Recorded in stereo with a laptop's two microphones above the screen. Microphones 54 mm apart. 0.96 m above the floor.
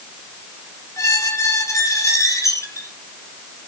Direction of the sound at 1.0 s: 70° left (ahead or behind).